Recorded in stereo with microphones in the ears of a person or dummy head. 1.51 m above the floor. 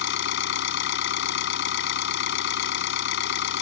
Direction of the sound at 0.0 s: 75° left (ahead or behind).